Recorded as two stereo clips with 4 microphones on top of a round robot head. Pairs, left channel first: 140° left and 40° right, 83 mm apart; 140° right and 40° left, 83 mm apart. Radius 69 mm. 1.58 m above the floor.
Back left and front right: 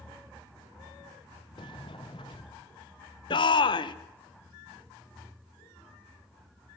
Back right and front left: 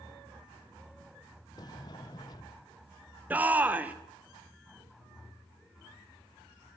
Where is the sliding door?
175° left, 0.7 m.